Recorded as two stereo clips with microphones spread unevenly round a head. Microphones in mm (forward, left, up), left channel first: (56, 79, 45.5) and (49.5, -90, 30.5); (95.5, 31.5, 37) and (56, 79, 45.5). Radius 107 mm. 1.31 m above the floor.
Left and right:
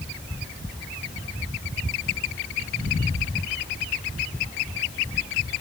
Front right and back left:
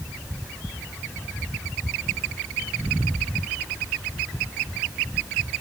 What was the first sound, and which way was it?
Only background noise.